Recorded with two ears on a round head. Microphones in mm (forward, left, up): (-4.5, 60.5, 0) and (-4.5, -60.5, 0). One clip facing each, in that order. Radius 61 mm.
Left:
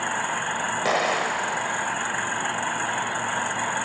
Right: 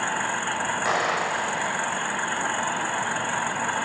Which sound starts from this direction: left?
An explosion, at 0.8 s.